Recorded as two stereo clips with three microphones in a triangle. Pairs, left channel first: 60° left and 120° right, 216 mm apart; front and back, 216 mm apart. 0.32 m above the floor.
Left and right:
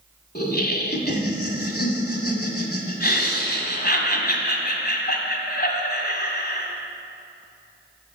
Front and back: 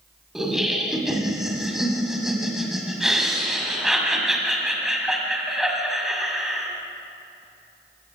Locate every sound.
0.3 s laughter: 90° left, 2 m